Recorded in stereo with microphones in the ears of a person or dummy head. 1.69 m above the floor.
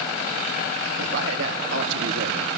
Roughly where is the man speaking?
Right.